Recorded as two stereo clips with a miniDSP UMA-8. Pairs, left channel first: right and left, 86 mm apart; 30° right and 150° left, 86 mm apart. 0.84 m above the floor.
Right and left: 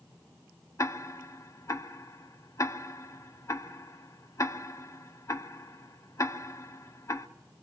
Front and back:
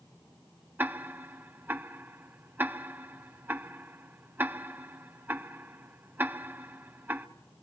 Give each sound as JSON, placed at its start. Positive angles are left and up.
{"t": 0.8, "sound": "ticking", "azimuth_deg": -145, "distance_m": 0.5}